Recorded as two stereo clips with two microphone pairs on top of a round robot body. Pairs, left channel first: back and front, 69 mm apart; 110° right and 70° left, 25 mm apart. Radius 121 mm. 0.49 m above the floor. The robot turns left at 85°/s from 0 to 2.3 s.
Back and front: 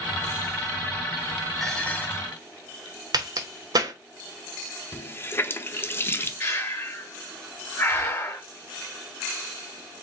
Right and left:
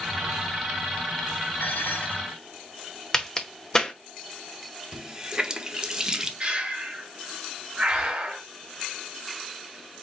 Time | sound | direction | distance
1.6 | dishes clattering | 100° right | 1.8 m
3.1 | a crack | 40° right | 1.0 m
4.9 | a running tap | 140° left | 1.0 m
6.4 | breathing | 125° left | 1.6 m